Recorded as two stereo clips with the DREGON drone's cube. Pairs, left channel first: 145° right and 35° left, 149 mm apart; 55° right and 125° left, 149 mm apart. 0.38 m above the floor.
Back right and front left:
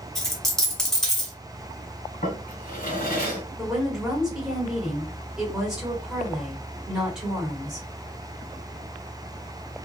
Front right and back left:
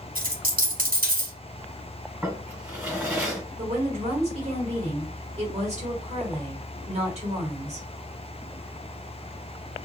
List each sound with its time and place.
0.1 s a dropped coin: 130° left, 1.4 m
2.2 s a drawer: 160° right, 1.4 m
3.6 s a woman speaking: 120° left, 1.5 m